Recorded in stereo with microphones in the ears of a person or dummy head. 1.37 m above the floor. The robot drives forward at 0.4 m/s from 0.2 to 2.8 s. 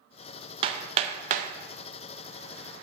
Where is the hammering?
35° right (ahead or behind), 1.1 m; by 1.5 s 50° right (ahead or behind), 0.9 m.